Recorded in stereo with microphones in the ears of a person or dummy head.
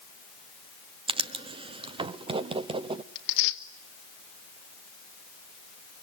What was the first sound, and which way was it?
Writing, 30° right (ahead or behind).